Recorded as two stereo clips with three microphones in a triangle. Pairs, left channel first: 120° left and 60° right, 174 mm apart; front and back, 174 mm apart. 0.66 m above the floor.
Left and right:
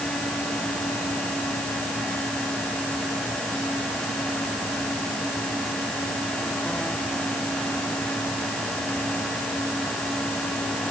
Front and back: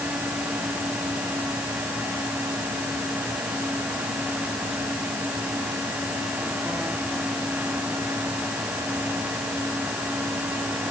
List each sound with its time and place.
Only background noise.